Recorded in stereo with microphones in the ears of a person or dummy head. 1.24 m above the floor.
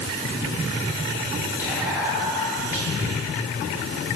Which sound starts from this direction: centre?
Whispering, at 1.6 s.